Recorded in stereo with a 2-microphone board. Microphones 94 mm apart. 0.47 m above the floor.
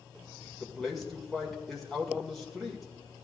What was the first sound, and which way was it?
A man speaking, centre (ahead or behind).